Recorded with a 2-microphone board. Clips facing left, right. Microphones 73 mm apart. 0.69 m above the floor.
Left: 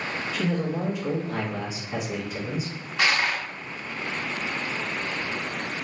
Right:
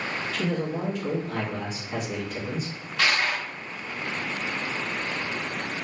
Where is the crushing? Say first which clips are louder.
Left 1 dB; 15° left (ahead or behind), 0.7 m.